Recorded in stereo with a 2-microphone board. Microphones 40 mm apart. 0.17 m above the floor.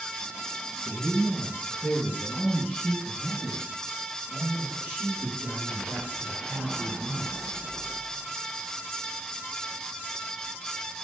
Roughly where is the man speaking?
Left.